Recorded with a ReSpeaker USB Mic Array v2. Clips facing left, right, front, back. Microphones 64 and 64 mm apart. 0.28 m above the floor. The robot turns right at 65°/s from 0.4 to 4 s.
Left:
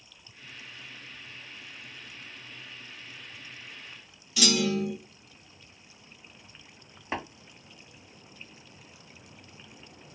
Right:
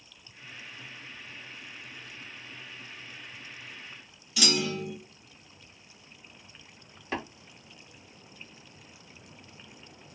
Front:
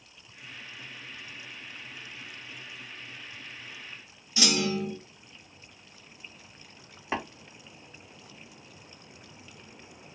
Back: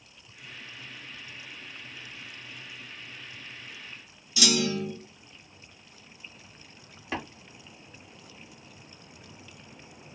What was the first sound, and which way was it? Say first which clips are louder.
A clunk: left 3 dB, back 1 dB; 5° right.